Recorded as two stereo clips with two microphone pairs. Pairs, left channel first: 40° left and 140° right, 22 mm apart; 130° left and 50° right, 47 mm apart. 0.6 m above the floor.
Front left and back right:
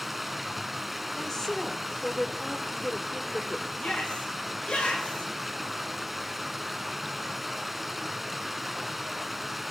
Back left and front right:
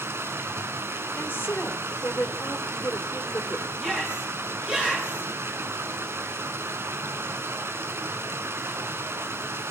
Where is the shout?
20° left, 9.5 m.